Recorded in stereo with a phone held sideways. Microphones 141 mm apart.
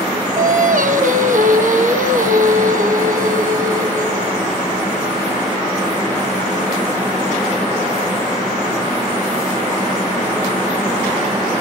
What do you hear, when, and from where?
0.4 s singing: 65° right (ahead or behind), 1.4 m